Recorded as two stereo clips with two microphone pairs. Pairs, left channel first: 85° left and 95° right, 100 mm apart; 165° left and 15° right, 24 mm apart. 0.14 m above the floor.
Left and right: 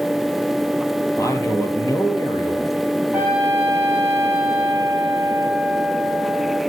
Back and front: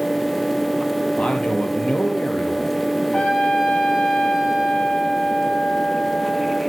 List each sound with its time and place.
1.2 s a man speaking: 140° left, 3.5 m
3.1 s a trumpet: 165° right, 9.5 m